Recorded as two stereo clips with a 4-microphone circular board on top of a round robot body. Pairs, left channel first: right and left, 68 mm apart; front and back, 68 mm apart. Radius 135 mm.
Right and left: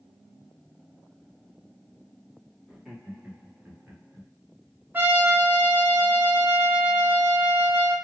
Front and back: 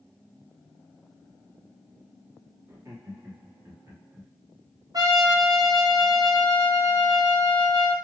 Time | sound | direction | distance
2.7 | laughter | 175° left | 1.8 m
4.9 | a trumpet | 155° left | 1.2 m